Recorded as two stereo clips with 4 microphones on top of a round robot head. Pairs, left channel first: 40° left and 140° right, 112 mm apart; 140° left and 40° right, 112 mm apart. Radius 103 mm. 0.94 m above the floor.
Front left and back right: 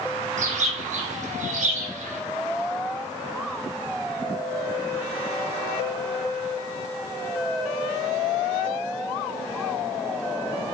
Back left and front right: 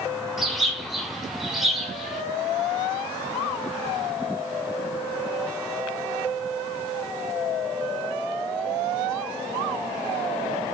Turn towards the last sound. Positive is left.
turn(degrees=-130)